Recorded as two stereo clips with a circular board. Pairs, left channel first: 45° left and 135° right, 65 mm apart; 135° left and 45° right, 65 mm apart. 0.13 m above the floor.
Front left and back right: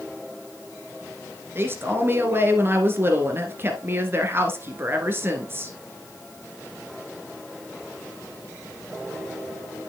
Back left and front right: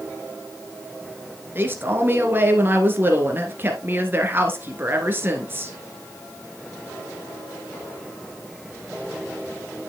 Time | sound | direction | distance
1.6 | a man speaking | 90° right | 1.7 m